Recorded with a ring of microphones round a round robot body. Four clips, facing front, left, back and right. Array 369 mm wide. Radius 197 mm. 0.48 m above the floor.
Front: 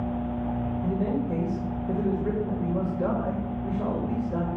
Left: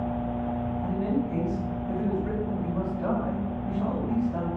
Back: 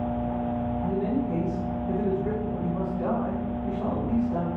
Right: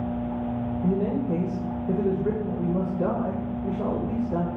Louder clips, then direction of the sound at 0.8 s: Right 4 dB, even; 70° right.